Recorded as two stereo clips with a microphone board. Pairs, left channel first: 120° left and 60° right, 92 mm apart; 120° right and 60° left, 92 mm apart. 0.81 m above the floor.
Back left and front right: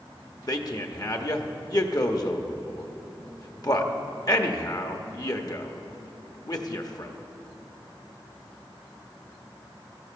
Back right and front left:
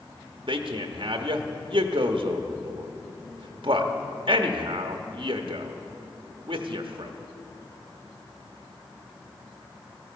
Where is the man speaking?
80° left, 1.0 m.